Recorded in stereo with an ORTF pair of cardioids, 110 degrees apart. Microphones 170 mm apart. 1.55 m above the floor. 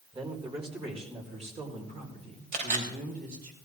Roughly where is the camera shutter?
Ahead right.